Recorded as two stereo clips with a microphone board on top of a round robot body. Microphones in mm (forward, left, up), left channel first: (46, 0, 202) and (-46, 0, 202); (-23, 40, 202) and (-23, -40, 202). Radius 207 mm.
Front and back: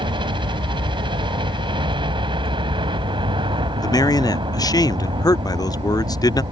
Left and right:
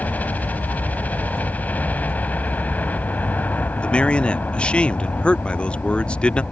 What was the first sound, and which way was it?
A helicopter, 160° left.